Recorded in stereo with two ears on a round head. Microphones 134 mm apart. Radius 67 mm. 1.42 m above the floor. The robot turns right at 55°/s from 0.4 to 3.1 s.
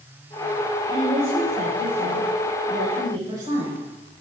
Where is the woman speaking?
150° right, 6.5 m; by 3.9 s 30° right, 6.5 m.